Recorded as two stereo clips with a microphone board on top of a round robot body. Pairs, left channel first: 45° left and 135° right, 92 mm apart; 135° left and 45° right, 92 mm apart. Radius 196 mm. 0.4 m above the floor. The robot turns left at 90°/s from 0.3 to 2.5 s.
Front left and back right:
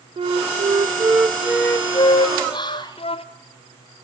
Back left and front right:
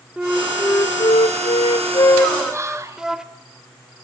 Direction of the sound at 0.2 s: 125° right.